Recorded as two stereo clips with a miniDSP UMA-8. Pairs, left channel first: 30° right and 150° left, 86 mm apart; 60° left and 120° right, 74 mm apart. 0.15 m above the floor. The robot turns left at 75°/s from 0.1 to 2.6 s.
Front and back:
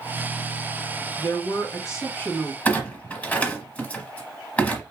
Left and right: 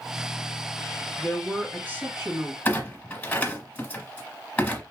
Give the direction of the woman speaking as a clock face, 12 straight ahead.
12 o'clock.